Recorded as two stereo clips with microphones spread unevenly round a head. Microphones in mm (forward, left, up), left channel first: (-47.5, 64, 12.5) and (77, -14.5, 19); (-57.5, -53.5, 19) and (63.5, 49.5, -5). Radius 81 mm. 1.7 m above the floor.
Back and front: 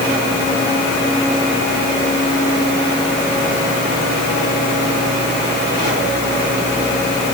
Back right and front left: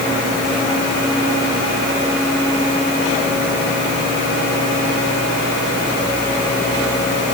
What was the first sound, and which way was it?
Only background noise.